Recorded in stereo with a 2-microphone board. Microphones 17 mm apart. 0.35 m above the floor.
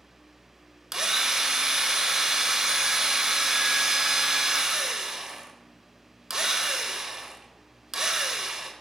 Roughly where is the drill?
Right.